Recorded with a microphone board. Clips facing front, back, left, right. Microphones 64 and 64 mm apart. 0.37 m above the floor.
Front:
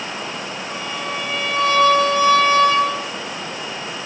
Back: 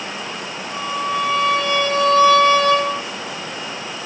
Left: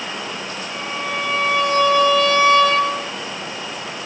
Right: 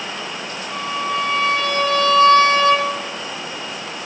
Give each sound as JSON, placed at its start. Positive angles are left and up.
{"t": 0.7, "sound": "a violin", "azimuth_deg": -60, "distance_m": 4.5}